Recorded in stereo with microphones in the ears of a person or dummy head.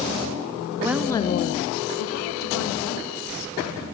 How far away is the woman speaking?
About 0.8 m.